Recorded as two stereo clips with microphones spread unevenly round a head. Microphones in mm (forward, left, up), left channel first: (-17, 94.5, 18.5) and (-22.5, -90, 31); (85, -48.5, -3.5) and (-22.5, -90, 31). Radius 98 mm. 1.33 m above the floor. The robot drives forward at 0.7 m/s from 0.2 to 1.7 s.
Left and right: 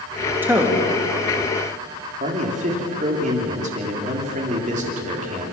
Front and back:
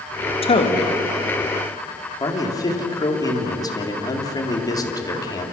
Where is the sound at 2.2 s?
35° right, 3.5 m.